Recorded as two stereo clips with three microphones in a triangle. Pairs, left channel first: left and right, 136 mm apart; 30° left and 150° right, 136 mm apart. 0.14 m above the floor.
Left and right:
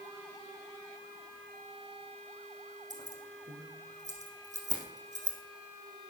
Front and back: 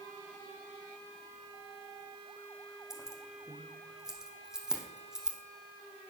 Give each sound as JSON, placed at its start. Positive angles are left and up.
{"t": 2.9, "sound": "keys jangling", "azimuth_deg": -65, "distance_m": 4.0}